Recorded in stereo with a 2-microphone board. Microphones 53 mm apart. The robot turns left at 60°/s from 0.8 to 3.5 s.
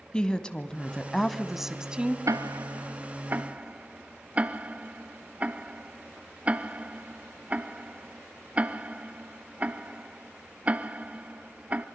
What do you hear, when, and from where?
0.1 s a woman speaking: 15° left (ahead or behind), 1.1 m; by 2.2 s 20° right (ahead or behind), 1.1 m
2.3 s ticking: 80° right, 0.6 m; by 11.9 s 25° right (ahead or behind), 0.6 m